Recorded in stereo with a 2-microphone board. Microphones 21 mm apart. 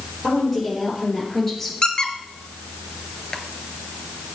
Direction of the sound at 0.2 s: Centre (ahead or behind).